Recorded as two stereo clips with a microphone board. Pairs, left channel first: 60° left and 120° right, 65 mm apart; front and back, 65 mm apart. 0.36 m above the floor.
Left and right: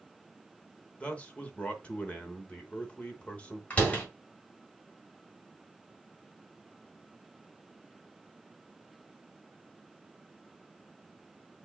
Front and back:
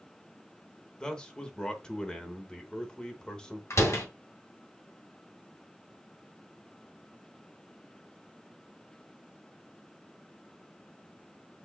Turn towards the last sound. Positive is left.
turn(degrees=0)